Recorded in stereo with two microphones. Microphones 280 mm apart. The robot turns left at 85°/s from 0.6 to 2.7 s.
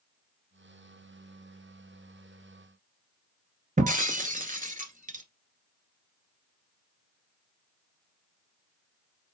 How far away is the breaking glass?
About 0.7 m.